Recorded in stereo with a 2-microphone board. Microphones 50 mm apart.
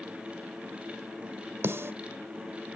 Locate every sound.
1.6 s a snare drum: 55° right (ahead or behind), 1.0 m